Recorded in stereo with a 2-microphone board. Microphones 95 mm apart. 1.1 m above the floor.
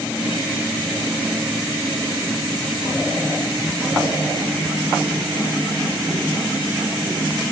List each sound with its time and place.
Only background noise.